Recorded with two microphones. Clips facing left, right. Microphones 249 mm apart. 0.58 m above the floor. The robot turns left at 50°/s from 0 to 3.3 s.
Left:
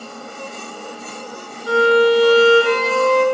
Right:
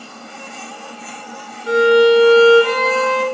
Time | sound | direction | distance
1.7 | a violin | 155° right | 1.9 m